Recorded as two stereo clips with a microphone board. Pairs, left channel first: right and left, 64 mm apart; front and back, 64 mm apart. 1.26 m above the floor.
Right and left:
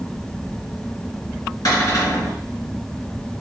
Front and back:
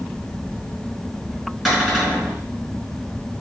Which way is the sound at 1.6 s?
90° right.